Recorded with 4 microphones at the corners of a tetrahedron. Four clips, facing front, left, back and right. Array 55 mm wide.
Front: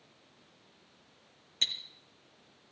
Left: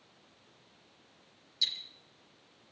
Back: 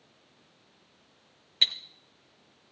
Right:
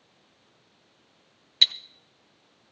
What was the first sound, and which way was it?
Ticking, 115° right.